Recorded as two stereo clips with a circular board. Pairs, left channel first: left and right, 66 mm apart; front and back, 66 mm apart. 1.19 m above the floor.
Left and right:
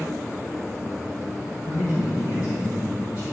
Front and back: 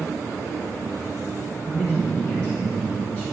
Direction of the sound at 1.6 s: 65° left.